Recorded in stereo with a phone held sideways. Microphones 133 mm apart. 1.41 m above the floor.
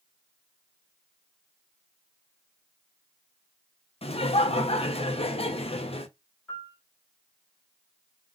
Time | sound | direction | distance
4.0 | laughter | 50° left (ahead or behind) | 0.5 m
6.5 | a piano | 10° left (ahead or behind) | 1.6 m